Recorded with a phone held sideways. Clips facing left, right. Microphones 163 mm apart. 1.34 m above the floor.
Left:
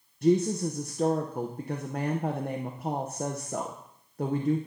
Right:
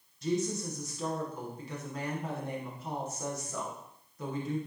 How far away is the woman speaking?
About 0.7 m.